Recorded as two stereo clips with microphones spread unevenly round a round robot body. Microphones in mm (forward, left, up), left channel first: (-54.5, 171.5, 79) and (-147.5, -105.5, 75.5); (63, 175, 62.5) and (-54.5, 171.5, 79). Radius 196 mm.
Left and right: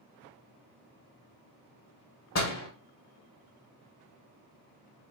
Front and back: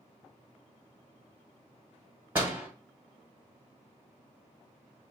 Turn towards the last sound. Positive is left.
turn(degrees=105)